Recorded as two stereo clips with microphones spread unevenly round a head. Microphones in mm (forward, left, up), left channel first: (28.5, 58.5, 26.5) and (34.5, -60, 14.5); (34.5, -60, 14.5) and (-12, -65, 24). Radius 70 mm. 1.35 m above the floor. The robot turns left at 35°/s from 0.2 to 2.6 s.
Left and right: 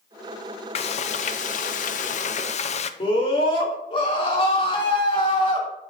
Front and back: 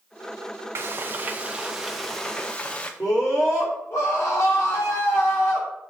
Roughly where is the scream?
Ahead left.